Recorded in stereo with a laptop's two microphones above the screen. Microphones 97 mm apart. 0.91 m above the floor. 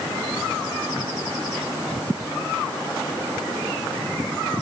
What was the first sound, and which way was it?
Only background noise.